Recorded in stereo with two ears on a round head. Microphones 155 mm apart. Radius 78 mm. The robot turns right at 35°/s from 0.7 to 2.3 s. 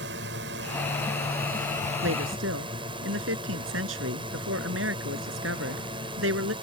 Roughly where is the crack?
I don't hear a crack.